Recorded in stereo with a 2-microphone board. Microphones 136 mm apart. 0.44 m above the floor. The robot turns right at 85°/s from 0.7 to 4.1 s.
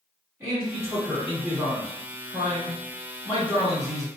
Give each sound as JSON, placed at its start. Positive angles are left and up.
{"t": 0.4, "sound": "a man speaking", "side_deg": -20, "distance_m": 1.3}